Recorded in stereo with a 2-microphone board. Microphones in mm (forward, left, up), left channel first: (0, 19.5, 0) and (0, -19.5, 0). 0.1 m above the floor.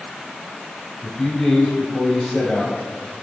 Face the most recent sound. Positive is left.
turn(degrees=15)  # may be behind; listen again after turning